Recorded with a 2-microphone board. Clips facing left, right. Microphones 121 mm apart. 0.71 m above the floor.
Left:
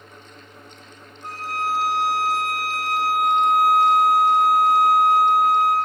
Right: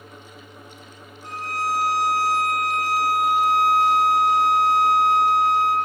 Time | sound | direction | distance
1.2 | a violin | 65° left (ahead or behind) | 6.5 m